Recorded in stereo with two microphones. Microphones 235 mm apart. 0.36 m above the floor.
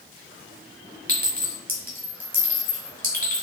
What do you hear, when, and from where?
1.1 s a clink: 40° right (ahead or behind), 3 m